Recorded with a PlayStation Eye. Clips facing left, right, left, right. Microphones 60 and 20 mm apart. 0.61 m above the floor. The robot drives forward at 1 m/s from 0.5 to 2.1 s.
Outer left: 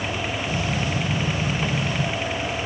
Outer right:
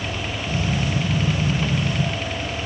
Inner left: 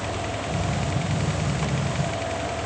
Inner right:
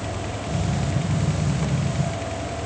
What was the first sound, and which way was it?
Only background noise.